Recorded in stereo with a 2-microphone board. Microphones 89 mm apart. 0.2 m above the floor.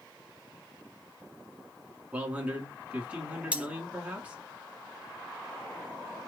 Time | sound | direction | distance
2.1 | a man speaking | 15° right (ahead or behind) | 2.5 m
3.5 | cutlery clinking | 15° right (ahead or behind) | 0.9 m